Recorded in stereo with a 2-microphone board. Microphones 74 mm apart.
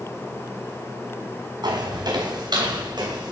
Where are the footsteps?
90° right, 3 m; by 3.3 s 80° right, 4 m.